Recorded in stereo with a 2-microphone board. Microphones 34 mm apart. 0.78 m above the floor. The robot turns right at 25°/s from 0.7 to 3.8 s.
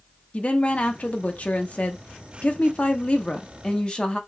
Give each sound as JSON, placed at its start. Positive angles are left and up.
{"t": 0.3, "sound": "a woman speaking", "azimuth_deg": 60, "distance_m": 0.8}